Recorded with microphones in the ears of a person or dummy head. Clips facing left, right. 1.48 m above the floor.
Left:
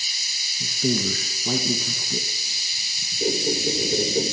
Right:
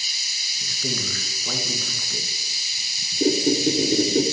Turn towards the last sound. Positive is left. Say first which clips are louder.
# right 5 dB
turn(degrees=-65)  # may be behind; listen again after turning